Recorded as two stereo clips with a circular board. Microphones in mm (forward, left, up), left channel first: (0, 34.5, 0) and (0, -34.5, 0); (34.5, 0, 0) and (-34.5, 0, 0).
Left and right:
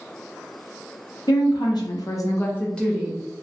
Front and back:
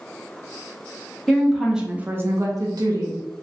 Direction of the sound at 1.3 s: 85° left.